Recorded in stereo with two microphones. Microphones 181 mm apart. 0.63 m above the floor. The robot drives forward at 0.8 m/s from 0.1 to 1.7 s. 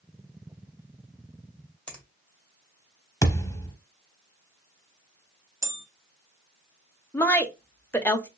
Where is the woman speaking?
10° left (ahead or behind), 0.7 m.